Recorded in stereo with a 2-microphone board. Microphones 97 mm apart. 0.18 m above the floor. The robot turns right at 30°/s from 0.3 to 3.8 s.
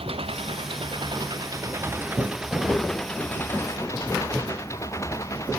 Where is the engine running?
75° right; by 5.6 s 30° left.